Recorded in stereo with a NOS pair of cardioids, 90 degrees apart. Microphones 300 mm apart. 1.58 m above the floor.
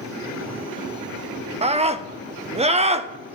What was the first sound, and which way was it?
A scream, 20° right.